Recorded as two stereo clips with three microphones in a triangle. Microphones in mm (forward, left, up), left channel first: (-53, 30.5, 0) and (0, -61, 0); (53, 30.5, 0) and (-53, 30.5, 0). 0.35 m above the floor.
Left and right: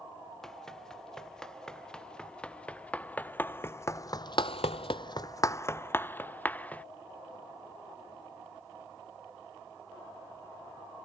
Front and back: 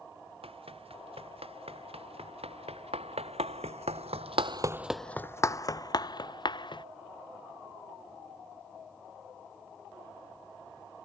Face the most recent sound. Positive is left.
turn(degrees=45)